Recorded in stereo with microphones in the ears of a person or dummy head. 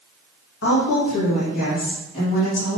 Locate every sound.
0.6 s a woman speaking: 65° left (ahead or behind), 2.5 m; by 2.8 s 55° left (ahead or behind), 4.5 m